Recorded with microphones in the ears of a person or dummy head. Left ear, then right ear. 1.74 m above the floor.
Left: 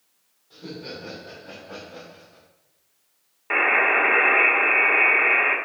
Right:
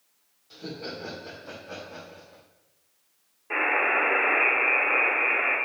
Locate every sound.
0.5 s laughter: 70° right (ahead or behind), 1.9 m; by 2.4 s 50° right (ahead or behind), 3 m
3.5 s a buzzer: 60° left (ahead or behind), 1.4 m